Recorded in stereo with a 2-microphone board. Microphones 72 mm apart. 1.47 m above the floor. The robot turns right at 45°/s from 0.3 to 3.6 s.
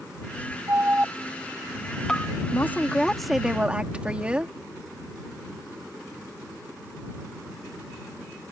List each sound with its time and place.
0.7 s an alarm: 40° right (ahead or behind); by 2.3 s 20° left (ahead or behind)
2.5 s a woman speaking: 145° left; by 4.5 s 165° right